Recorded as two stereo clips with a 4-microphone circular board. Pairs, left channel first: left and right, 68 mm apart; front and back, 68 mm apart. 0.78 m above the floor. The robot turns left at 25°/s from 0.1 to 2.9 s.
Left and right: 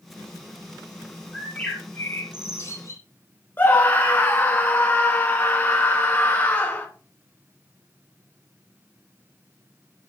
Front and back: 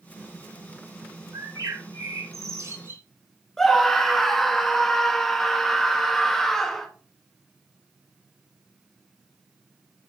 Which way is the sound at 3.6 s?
80° left.